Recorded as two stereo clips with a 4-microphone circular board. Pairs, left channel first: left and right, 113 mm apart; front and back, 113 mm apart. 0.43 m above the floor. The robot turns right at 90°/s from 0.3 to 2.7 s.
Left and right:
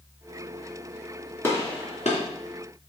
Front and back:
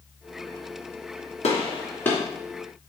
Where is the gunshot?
20° left, 3 m; by 2.2 s 85° left, 3 m.